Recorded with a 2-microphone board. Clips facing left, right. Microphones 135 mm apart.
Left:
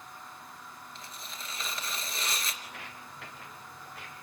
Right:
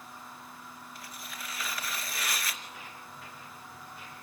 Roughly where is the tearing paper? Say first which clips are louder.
Right 2 dB; left.